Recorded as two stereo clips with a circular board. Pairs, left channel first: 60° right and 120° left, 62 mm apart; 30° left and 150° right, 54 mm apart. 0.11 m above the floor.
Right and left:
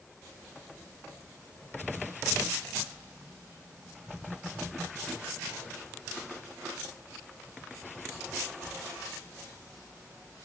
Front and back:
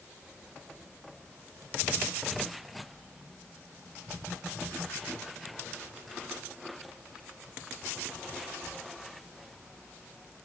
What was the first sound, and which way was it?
Only background noise.